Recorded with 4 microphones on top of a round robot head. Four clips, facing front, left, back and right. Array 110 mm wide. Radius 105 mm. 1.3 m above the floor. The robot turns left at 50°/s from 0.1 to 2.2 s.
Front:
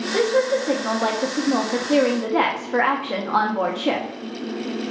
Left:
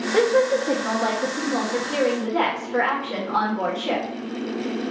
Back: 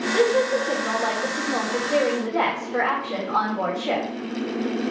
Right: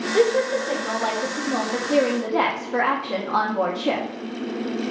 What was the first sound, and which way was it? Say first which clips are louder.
A woman speaking: left 1 dB, front 1 dB; 75° left.